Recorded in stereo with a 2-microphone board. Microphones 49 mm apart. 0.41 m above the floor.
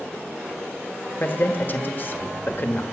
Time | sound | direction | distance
1.2 | a man speaking | 45° left (ahead or behind) | 1.2 m